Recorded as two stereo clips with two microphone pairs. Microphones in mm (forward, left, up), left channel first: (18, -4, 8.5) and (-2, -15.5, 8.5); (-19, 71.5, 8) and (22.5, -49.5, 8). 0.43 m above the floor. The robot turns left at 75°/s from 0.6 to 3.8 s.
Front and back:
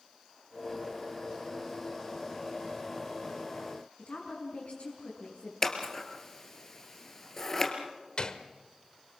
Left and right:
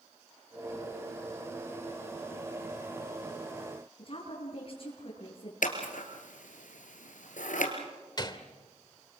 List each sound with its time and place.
4.0 s a woman speaking: 65° left, 5 m
5.6 s scissors: 105° left, 2.5 m
8.2 s a gunshot: 65° left, 1.2 m